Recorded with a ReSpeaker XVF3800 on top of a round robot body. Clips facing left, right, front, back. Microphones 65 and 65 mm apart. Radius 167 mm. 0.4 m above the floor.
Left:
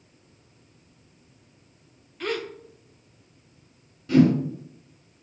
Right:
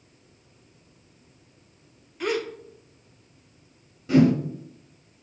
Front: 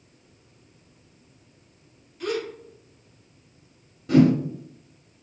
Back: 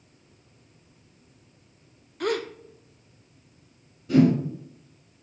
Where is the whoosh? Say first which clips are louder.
Even, front 2 dB; 20° right, 1.9 m.